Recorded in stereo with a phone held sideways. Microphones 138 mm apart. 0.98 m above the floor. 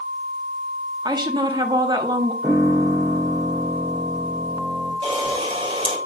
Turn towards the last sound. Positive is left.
turn(degrees=-40)  # may be behind; listen again after turning